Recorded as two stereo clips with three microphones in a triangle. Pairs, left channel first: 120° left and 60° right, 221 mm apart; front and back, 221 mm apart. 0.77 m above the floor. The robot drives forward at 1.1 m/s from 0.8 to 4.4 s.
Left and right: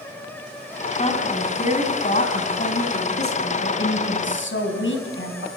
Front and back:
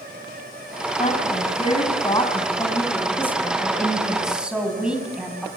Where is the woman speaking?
60° left, 6.5 m; by 5.5 s 95° left, 5.5 m.